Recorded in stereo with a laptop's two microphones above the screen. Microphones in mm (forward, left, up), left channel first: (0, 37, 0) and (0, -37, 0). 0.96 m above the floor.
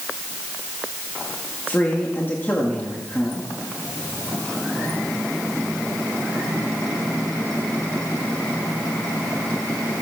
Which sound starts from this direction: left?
A man speaking, at 1.7 s.